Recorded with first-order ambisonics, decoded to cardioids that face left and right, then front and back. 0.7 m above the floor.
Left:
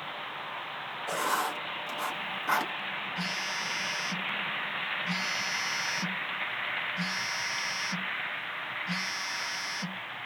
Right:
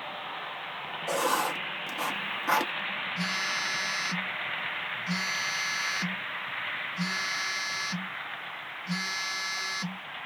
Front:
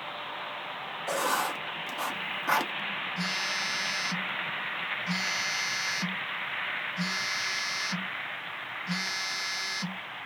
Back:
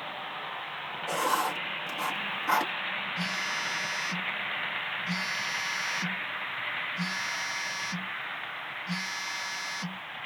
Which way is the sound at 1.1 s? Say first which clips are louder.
Right 2 dB, back 1 dB; 45° right.